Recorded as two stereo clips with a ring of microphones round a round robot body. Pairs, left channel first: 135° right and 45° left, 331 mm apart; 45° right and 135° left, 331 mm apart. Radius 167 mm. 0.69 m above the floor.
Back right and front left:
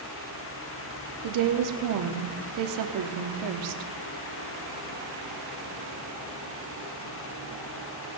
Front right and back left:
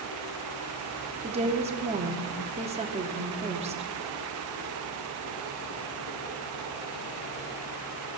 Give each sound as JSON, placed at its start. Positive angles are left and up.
{"t": 1.2, "sound": "a woman speaking", "azimuth_deg": 65, "distance_m": 1.3}